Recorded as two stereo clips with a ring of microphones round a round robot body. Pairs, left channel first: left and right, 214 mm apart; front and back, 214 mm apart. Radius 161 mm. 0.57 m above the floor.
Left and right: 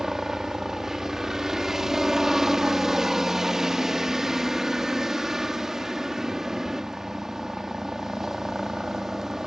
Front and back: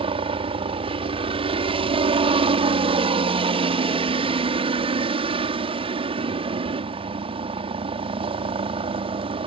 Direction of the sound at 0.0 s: 175° right.